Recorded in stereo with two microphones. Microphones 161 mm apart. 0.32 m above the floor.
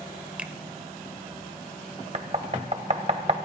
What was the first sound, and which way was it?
A finger snap, 10° right (ahead or behind).